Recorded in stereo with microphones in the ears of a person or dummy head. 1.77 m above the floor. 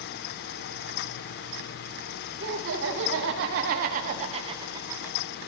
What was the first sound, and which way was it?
Laughter, 80° right.